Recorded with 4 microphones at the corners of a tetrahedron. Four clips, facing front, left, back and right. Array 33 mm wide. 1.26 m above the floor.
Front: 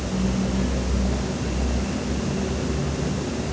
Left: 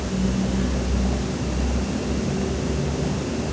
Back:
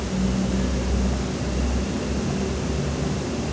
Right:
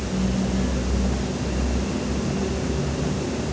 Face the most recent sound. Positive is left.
No sound to turn to.